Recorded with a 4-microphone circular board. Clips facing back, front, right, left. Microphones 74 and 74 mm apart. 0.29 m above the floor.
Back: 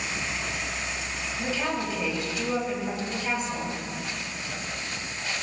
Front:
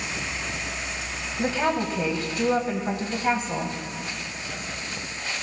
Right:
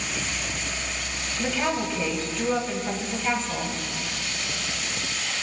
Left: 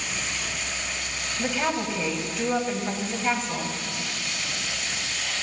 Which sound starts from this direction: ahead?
A woman speaking, at 1.4 s.